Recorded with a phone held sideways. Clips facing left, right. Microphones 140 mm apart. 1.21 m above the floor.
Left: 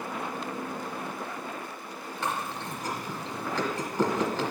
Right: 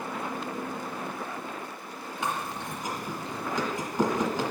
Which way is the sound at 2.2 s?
15° right (ahead or behind).